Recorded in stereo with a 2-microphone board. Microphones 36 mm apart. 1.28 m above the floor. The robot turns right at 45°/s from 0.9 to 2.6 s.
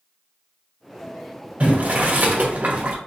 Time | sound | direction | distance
1.6 | boiling | 120° right | 0.8 m